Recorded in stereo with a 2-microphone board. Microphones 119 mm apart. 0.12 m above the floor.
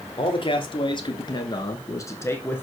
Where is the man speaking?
45° left (ahead or behind), 1.6 m; by 2.6 s 15° left (ahead or behind), 1.2 m.